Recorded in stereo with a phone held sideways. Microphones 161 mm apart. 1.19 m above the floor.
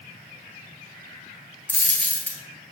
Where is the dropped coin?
10° left (ahead or behind), 1.5 m.